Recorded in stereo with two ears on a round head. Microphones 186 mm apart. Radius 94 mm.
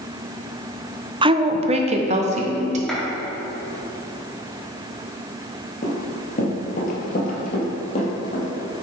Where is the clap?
Centre (ahead or behind), 2.5 m.